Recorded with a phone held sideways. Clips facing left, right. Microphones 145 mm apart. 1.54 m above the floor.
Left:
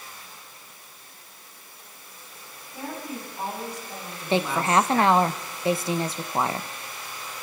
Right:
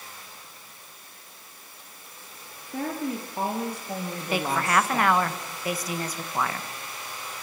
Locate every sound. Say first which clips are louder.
2.7 s a woman speaking: right 5 dB; 75° right (ahead or behind), 4 m; by 5.1 s 15° right (ahead or behind), 1.9 m
4.3 s a woman speaking: left 3 dB; 25° left (ahead or behind), 1.2 m